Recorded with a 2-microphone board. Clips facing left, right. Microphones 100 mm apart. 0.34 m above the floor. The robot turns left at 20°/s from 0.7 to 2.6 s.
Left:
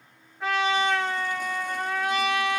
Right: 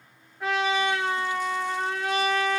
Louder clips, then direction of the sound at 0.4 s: Left 1 dB; 5° right.